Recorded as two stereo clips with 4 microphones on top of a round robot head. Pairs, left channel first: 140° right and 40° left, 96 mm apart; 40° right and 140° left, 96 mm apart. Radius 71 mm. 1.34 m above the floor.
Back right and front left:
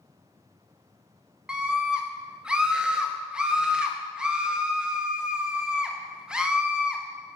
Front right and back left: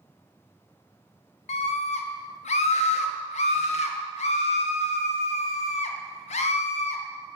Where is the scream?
40° right, 1.5 m.